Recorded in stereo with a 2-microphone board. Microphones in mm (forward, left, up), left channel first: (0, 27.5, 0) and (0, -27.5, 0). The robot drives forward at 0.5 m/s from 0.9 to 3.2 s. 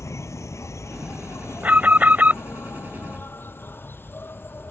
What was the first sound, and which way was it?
An insect, 65° left (ahead or behind).